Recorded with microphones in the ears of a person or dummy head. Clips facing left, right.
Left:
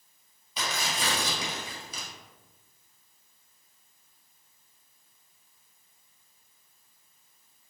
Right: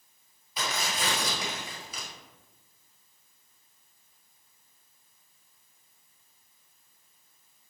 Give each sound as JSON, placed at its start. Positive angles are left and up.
{"t": 0.6, "sound": "tearing paper", "side_deg": 80, "distance_m": 1.9}